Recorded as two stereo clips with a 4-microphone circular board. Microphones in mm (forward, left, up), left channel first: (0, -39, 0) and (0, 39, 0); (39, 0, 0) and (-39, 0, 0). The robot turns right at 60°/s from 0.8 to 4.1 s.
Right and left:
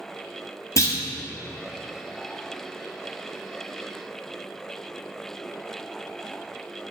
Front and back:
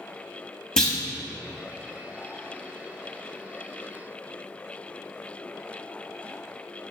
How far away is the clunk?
About 0.6 m.